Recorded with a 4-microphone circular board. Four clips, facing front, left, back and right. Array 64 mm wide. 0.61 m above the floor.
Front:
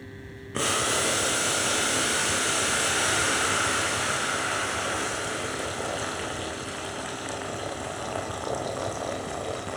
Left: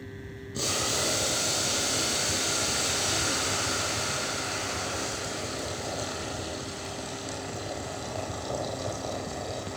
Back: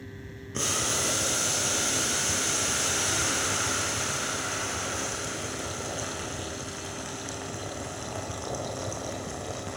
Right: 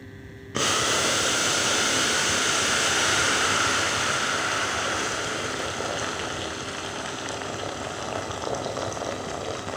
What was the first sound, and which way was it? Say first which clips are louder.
Boiling: right 7 dB, front 5 dB; 70° right.